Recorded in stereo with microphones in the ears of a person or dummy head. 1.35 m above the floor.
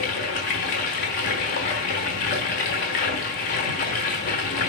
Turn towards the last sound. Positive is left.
turn(degrees=30)  # may be behind; listen again after turning